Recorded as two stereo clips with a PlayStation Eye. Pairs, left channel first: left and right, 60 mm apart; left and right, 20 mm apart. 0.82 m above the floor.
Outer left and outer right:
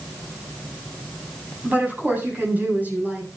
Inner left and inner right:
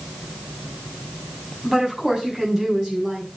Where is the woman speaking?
30° right (ahead or behind), 7.5 m.